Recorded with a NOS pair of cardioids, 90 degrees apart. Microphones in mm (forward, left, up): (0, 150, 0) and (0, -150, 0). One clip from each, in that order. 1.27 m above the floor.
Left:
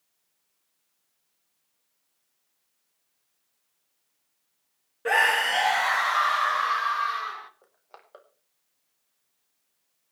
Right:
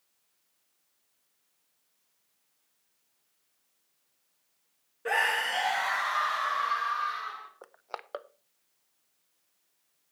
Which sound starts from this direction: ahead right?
Crushing, at 7.6 s.